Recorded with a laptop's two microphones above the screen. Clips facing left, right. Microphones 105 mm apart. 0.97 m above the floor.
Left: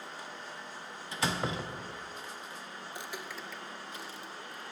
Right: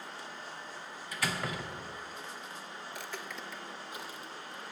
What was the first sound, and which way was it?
A door slam, 25° left (ahead or behind).